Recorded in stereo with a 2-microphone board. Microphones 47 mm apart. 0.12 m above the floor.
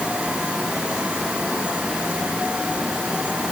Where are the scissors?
I don't hear scissors.